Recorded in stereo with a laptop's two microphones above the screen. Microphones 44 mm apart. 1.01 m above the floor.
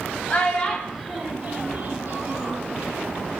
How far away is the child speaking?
About 1.0 m.